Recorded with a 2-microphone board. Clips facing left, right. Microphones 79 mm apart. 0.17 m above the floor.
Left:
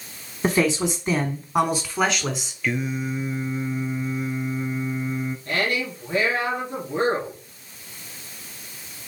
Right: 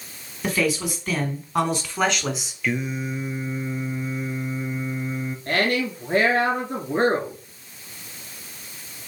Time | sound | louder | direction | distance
0.4 | a man speaking | left 3 dB | 35° left (ahead or behind) | 1.2 m
2.6 | singing | even | centre (ahead or behind) | 0.8 m
5.5 | a woman speaking | right 4 dB | 60° right (ahead or behind) | 2.5 m